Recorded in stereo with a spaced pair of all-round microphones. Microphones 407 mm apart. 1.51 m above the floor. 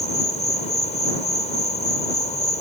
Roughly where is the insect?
Centre.